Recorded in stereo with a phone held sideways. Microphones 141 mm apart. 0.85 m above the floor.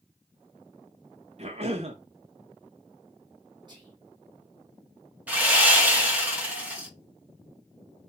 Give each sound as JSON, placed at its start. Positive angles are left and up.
{"t": 1.4, "sound": "a cough", "side_deg": -50, "distance_m": 0.6}
{"t": 3.7, "sound": "whispering", "side_deg": -35, "distance_m": 0.9}
{"t": 5.3, "sound": "sawing", "side_deg": -10, "distance_m": 0.9}